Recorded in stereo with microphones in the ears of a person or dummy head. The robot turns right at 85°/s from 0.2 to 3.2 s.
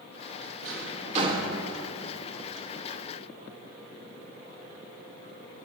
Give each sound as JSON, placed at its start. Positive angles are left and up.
{"t": 0.6, "sound": "a drawer", "side_deg": -70, "distance_m": 1.1}